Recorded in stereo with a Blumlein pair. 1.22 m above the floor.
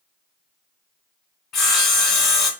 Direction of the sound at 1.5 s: 30° left.